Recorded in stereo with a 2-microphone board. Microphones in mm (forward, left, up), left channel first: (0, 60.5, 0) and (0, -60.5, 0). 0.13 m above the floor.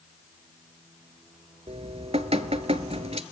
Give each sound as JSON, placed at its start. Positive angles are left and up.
{"t": 1.7, "sound": "dripping", "side_deg": -60, "distance_m": 0.7}